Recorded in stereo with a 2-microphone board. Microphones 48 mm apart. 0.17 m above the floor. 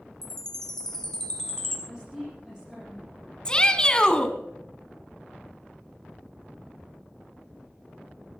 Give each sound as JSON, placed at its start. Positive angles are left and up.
{"t": 0.2, "sound": "a chime", "side_deg": 15, "distance_m": 2.5}
{"t": 1.9, "sound": "a woman speaking", "side_deg": -10, "distance_m": 7.0}
{"t": 3.5, "sound": "a shout", "side_deg": 20, "distance_m": 1.6}